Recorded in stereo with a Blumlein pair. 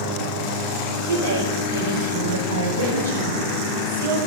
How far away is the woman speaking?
About 5.5 m.